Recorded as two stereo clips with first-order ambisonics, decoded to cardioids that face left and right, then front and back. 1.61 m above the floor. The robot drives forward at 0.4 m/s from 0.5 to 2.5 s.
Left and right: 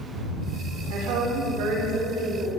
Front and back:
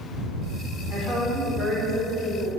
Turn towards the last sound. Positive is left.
turn(degrees=-95)